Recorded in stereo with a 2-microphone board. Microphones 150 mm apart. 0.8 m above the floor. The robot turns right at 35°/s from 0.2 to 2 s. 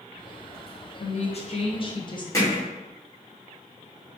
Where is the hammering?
20° left (ahead or behind), 1.3 m.